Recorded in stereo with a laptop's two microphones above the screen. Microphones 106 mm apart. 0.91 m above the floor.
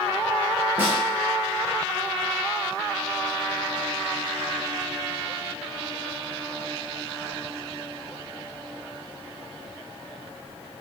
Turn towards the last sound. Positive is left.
turn(degrees=-20)  # may be behind; listen again after turning